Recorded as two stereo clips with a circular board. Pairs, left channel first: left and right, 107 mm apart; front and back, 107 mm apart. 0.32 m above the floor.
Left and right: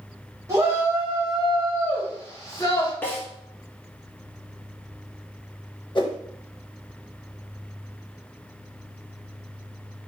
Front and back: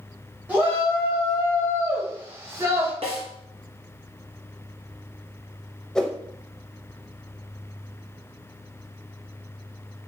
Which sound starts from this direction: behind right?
A shout, at 0.5 s.